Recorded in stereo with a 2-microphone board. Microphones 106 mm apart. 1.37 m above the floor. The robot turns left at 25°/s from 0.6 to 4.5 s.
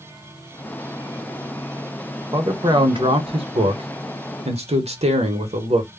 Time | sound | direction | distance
2.3 | a man speaking | 35° right | 0.9 m